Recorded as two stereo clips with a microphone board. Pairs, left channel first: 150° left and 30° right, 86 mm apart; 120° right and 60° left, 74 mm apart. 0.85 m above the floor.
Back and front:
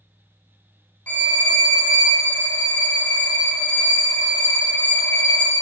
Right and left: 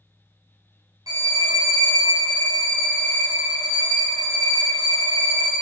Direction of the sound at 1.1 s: 80° left.